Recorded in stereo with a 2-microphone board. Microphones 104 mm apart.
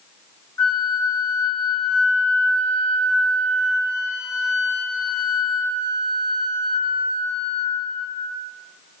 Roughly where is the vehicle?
I don't hear a vehicle.